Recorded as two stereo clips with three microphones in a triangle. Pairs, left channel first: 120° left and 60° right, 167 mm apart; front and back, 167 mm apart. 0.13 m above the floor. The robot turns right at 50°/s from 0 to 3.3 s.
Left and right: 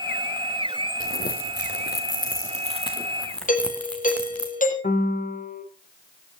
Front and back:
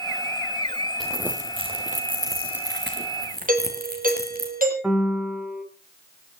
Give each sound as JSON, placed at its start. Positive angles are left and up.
{"t": 1.0, "sound": "crumpling", "azimuth_deg": 90, "distance_m": 2.5}
{"t": 3.5, "sound": "a doorbell", "azimuth_deg": 150, "distance_m": 5.5}
{"t": 4.8, "sound": "a piano", "azimuth_deg": 95, "distance_m": 3.0}